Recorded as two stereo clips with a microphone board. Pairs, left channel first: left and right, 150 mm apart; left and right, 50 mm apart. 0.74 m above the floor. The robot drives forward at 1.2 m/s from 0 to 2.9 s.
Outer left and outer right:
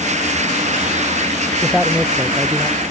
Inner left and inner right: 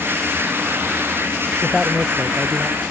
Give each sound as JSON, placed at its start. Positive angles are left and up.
{"t": 1.6, "sound": "a man speaking", "side_deg": 0}